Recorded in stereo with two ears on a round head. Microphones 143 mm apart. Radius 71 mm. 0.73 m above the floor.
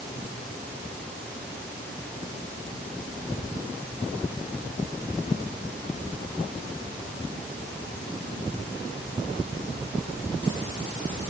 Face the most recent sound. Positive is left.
No sound to turn to.